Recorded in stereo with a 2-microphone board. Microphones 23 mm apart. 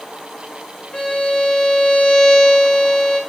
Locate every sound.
0.9 s a violin: 50° left (ahead or behind), 3 m